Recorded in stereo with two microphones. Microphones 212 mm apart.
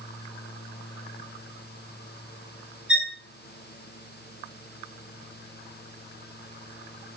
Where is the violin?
70° right (ahead or behind), 3 m.